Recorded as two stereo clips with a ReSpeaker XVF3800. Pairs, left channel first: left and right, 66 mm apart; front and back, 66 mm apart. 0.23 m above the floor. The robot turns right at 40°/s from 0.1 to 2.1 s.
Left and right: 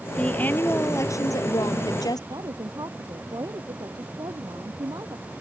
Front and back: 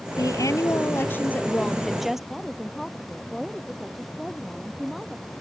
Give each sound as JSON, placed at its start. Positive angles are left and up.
{"t": 0.2, "sound": "a woman speaking", "azimuth_deg": 15}
{"t": 2.3, "sound": "a woman speaking", "azimuth_deg": -90}